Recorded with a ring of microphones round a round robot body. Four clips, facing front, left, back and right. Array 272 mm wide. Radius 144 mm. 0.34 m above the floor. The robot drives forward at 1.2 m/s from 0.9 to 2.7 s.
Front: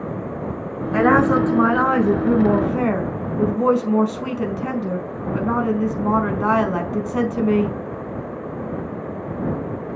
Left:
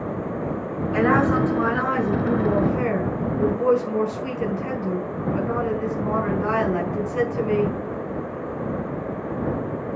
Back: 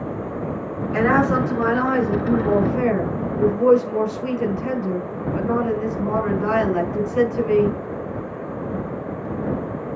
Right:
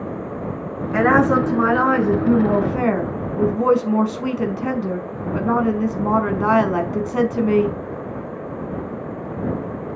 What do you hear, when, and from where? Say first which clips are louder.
0.9 s a woman speaking: right 4 dB, front 3 dB; 40° right, 6 m; by 7.8 s 55° right, 4.5 m